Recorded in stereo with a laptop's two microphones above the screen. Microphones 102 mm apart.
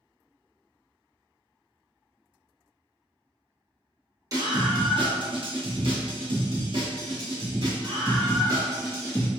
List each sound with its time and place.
4.3 s a scream: 35° right (ahead or behind), 1.2 m; by 9.3 s 40° right (ahead or behind), 3.5 m